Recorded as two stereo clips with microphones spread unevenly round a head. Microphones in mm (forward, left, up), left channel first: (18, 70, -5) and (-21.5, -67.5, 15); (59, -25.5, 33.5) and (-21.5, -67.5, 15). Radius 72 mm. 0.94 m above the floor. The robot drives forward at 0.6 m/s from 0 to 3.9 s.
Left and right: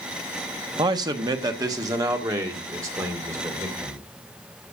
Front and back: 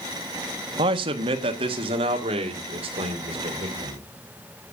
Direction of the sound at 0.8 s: 170° right.